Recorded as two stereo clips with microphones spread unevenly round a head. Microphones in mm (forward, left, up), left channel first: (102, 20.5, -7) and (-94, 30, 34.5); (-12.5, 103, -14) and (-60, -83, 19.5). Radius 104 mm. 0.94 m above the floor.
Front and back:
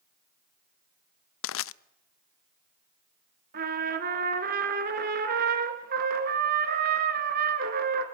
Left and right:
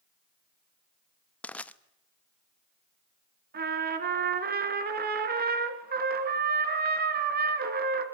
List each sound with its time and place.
1.4 s crushing: 5° right, 0.6 m
3.5 s a trumpet: 140° right, 2.5 m